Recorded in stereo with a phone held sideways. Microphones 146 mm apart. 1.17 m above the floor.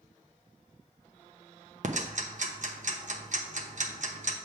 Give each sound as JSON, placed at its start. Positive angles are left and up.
{"t": 1.8, "sound": "ticking", "side_deg": -55, "distance_m": 0.8}